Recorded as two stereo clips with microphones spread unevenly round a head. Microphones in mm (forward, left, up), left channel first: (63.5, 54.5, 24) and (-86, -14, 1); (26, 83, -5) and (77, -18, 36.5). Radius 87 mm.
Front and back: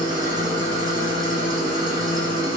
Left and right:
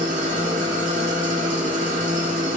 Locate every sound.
0.0 s an engine running: 85° right, 1.0 m